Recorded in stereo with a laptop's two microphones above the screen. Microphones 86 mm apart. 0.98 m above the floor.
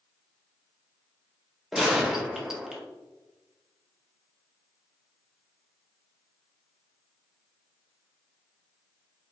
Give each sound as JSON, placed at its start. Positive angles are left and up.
{"t": 1.7, "sound": "a gunshot", "side_deg": -5, "distance_m": 0.6}